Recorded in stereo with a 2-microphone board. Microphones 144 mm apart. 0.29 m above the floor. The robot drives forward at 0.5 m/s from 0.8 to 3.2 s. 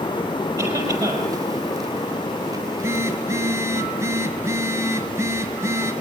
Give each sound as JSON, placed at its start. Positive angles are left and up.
{"t": 0.6, "sound": "a cough", "side_deg": -25, "distance_m": 7.0}
{"t": 2.6, "sound": "a phone buzzing", "side_deg": -15, "distance_m": 2.0}